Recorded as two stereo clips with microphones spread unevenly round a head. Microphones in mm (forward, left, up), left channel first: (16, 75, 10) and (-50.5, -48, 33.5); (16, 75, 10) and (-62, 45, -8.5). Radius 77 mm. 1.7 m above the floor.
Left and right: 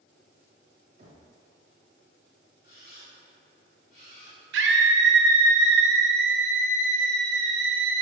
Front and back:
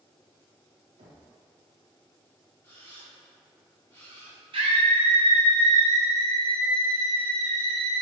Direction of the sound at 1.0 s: 145° right.